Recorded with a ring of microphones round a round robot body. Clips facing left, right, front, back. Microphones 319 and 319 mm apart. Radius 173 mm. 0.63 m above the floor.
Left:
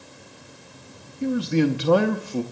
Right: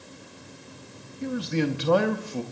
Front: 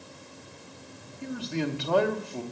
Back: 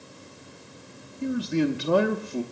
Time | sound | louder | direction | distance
1.2 | a man speaking | left 6 dB, back 7 dB | 120° left | 0.6 m